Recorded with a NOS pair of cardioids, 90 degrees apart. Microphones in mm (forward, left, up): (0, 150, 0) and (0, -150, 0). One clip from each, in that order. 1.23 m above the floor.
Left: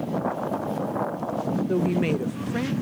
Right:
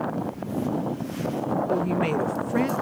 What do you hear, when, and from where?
1.7 s a woman speaking: 20° left; by 2.7 s 20° right